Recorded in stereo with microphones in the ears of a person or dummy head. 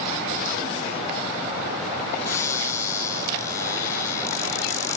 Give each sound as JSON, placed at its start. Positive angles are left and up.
{"t": 2.2, "sound": "a cupboard door", "side_deg": 25}